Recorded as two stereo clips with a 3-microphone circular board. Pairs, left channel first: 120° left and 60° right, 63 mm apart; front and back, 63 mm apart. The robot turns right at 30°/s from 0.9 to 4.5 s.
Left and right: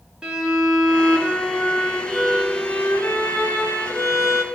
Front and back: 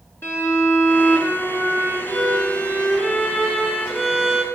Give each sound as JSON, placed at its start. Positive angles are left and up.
{"t": 0.2, "sound": "a violin", "azimuth_deg": 10, "distance_m": 1.9}